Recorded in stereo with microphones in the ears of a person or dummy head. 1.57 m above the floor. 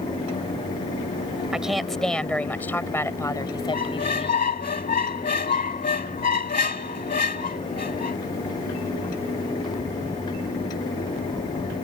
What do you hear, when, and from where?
1.5 s a woman speaking: 5° right (ahead or behind); by 4.4 s 25° left (ahead or behind)
3.7 s a squeak: 40° left (ahead or behind)